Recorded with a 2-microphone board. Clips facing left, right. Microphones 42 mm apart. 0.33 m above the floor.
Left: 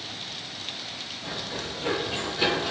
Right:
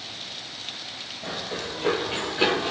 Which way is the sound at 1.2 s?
65° right (ahead or behind).